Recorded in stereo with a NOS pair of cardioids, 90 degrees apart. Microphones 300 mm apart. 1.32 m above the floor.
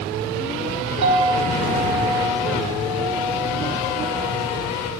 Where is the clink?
60° right, 1.3 m.